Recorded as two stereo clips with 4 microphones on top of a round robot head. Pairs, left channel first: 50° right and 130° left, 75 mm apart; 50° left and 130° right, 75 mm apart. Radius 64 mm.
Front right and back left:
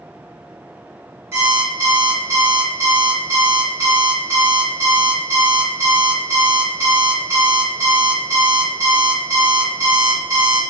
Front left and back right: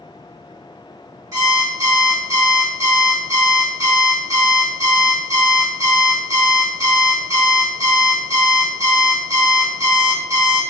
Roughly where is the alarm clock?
Behind.